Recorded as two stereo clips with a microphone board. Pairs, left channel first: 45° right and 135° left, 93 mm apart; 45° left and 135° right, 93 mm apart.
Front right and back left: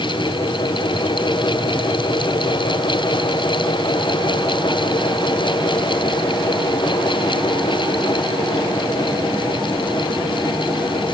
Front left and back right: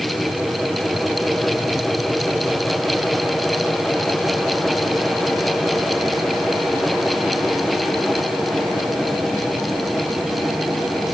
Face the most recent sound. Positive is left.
No sound to turn to.